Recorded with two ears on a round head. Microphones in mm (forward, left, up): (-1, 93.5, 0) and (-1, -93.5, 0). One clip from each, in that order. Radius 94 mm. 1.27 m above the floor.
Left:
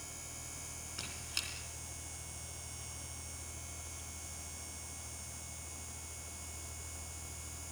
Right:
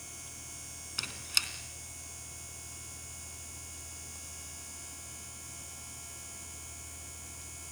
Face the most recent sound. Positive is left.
turn(degrees=-35)  # may be behind; listen again after turning